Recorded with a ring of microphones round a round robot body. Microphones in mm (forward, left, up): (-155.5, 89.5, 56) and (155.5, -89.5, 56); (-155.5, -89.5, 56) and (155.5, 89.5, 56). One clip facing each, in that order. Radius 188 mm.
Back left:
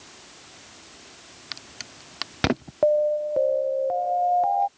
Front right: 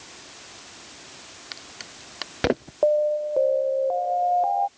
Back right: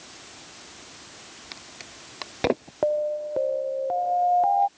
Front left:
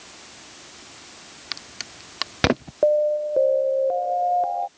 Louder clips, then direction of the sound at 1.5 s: Even, front left 2 dB; 85° left.